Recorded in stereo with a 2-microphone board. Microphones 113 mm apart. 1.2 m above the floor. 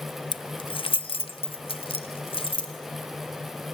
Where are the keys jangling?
40° left (ahead or behind), 0.5 m; by 2.7 s 55° left (ahead or behind), 2.5 m.